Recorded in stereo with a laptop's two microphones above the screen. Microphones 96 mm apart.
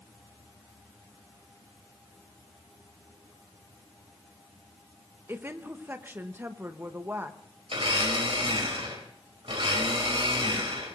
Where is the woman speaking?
25° right (ahead or behind), 0.9 m.